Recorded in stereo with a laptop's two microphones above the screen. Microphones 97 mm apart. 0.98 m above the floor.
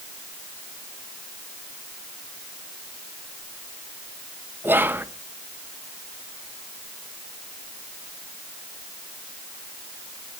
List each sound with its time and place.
4.6 s whispering: 20° right (ahead or behind), 0.6 m